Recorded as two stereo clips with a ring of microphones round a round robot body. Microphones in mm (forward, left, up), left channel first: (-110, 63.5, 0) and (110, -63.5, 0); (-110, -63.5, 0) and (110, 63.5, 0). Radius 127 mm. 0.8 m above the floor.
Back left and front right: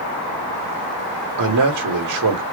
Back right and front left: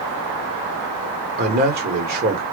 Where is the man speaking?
25° right, 2.5 m.